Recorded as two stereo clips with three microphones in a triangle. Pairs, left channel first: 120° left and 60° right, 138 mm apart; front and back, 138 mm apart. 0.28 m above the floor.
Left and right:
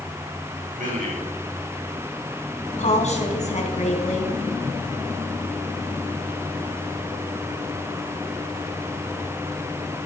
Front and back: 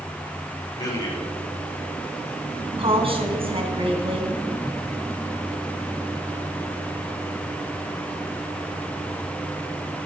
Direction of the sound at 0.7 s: 60° right.